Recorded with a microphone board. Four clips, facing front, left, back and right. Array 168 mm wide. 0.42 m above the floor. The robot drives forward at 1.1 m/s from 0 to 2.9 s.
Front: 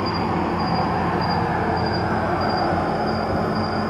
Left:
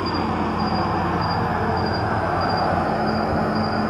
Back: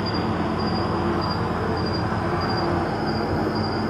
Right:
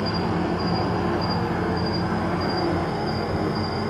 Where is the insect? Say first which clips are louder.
Left 2 dB, front 2 dB; 30° left, 5.5 m; by 3.9 s 60° left, 3.5 m.